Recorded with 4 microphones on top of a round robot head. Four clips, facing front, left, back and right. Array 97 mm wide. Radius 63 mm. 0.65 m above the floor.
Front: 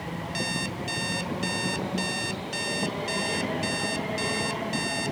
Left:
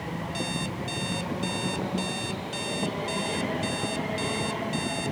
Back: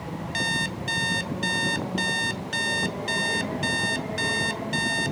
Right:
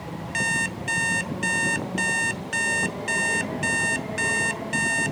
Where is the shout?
I don't hear a shout.